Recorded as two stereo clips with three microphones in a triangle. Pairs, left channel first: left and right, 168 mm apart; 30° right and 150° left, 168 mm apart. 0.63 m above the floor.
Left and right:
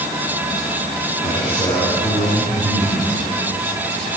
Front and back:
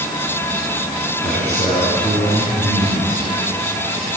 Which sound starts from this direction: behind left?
A man speaking, at 1.2 s.